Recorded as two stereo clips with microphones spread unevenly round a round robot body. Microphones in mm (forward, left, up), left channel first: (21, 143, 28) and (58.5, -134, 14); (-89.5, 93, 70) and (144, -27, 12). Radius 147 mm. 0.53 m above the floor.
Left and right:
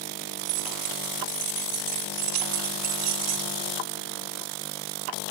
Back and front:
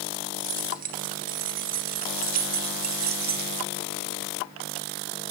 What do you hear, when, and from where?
0.4 s keys jangling: 85° right, 3 m; by 3.5 s 65° right, 1.3 m